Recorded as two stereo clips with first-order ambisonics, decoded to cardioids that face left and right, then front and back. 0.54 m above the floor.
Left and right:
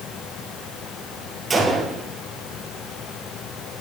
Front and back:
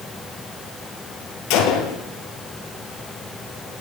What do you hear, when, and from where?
1.5 s a gunshot: 15° right, 2.5 m